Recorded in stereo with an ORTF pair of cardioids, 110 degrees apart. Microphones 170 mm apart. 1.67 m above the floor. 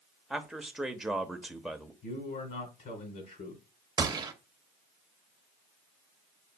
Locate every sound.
0.3 s a man speaking: straight ahead, 0.8 m
2.0 s a man speaking: 55° left, 1.6 m
4.0 s a gunshot: 25° right, 0.8 m